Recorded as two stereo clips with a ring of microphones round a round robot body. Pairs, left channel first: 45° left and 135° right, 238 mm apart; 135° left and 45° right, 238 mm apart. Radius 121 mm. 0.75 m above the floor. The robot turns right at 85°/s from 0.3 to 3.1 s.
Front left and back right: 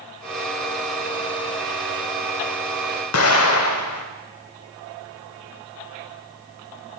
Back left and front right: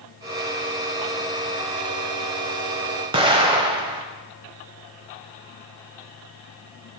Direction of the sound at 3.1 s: 25° left.